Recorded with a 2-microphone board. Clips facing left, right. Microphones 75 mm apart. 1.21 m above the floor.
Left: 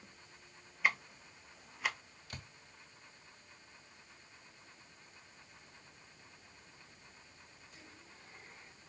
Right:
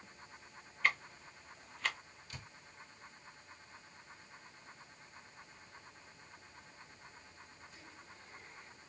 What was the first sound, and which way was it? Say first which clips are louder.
Ticking: left 1 dB; 10° left (ahead or behind).